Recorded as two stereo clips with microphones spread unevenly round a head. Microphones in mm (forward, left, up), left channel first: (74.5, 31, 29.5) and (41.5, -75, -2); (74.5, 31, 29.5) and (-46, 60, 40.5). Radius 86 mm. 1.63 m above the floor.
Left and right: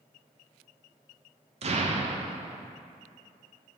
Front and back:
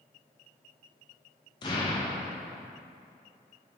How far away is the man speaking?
No man speaking in this recording.